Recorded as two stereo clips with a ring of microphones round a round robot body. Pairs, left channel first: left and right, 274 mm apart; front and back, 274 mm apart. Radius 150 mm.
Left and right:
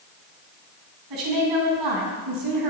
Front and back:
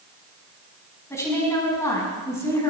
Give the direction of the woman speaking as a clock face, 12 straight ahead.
3 o'clock.